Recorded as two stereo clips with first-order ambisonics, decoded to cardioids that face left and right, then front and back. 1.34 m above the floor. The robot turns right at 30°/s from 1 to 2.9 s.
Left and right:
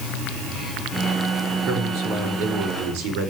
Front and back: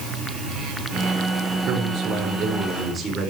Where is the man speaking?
140° right, 5.5 m; by 3.3 s 100° right, 5.5 m.